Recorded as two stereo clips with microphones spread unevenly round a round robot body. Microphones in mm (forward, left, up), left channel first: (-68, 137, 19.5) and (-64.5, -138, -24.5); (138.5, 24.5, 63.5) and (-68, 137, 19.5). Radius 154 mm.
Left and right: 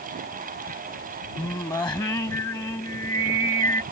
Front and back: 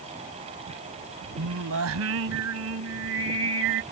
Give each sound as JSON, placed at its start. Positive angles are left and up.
{"t": 1.4, "sound": "singing", "azimuth_deg": 170}